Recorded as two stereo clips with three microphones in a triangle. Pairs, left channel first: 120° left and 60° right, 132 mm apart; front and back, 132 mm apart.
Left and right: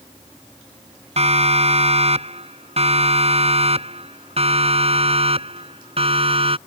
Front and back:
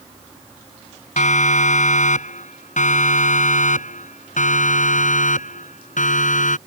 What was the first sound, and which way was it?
A siren, 20° right.